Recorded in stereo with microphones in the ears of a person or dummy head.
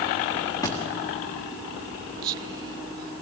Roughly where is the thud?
Centre.